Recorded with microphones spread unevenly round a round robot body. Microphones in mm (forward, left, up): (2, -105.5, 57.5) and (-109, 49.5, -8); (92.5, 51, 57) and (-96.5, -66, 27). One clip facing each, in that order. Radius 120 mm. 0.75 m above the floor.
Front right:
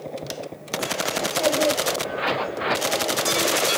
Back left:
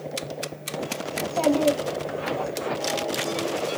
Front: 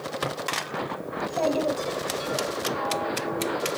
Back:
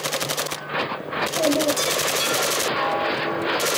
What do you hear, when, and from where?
1.1 s a child speaking: 155° left, 2.5 m; by 2.5 s 135° left, 2.5 m